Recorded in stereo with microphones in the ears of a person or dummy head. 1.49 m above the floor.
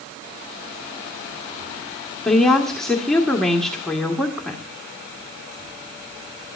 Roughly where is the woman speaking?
Centre.